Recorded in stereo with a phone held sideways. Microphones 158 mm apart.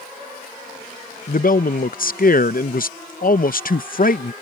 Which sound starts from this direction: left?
A man speaking, at 1.3 s.